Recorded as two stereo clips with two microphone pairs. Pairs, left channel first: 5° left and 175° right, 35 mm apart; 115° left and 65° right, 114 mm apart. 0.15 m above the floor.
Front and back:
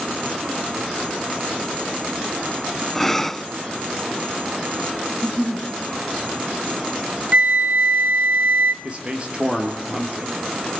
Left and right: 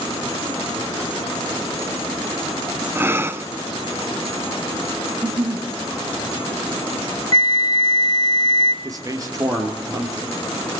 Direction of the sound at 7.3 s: 155° left.